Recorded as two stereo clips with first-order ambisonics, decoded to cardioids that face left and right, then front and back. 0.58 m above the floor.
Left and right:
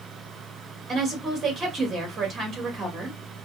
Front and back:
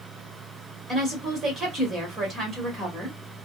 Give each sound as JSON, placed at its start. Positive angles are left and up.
{"t": 0.9, "sound": "a woman speaking", "azimuth_deg": -135, "distance_m": 1.3}